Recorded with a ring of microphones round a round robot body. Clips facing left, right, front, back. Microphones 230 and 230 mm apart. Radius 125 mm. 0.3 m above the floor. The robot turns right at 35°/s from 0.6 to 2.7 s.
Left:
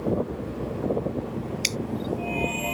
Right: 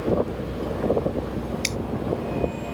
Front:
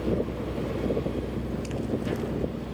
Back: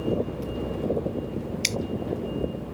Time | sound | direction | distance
1.6 | dripping | 165° left | ?